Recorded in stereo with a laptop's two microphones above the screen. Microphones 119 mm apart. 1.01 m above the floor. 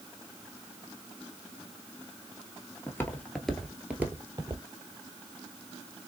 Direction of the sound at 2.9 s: 20° left (ahead or behind).